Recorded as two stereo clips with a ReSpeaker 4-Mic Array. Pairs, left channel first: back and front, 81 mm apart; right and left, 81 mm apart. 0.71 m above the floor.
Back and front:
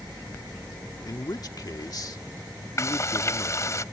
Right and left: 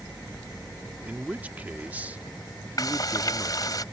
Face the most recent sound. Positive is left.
turn(degrees=-130)